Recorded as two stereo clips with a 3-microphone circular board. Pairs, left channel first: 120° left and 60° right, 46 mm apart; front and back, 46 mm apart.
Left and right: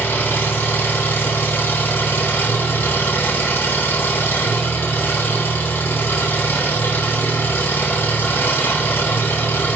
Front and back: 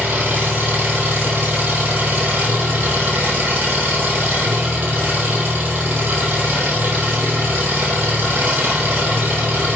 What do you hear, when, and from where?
0.0 s an engine running: 140° left, 5 m